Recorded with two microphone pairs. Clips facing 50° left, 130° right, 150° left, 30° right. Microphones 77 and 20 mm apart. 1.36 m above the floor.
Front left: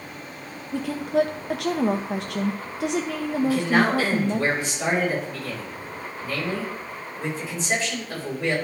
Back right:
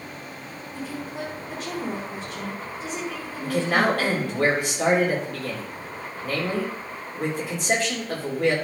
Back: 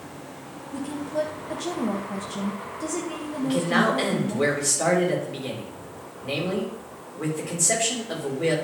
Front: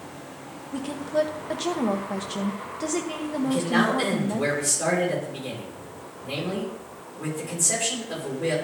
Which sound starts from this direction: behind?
A man speaking, at 3.4 s.